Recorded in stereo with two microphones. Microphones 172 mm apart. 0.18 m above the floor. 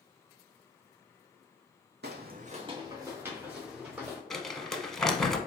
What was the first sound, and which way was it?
Footsteps, 80° right.